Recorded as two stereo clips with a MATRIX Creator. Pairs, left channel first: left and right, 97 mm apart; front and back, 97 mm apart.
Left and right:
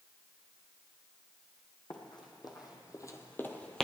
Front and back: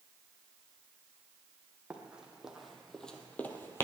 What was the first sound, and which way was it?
Running footsteps, 105° left.